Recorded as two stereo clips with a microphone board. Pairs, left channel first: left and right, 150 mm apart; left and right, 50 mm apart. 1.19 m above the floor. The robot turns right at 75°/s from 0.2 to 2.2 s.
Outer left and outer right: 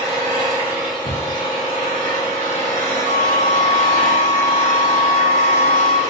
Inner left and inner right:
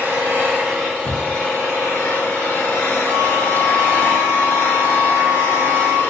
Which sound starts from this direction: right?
A flute, at 3.0 s.